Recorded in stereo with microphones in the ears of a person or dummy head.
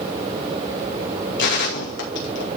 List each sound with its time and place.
1.4 s a gunshot: 55° left (ahead or behind), 2.5 m